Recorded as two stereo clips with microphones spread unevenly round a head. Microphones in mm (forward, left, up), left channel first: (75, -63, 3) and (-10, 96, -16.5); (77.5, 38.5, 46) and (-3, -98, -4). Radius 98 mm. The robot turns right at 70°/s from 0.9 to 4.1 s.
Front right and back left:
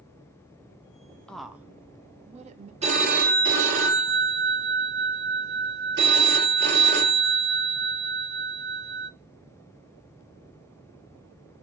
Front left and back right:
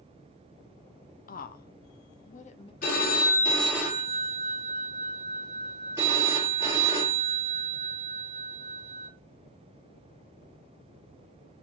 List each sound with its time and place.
1.3 s a woman speaking: 25° left, 0.5 m; by 2.7 s 125° left, 0.5 m
2.8 s a phone ringing: 60° left, 1.4 m; by 9.1 s 150° left, 1.4 m